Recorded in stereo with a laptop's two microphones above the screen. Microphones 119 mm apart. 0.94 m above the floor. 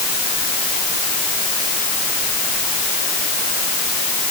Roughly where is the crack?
I don't hear a crack.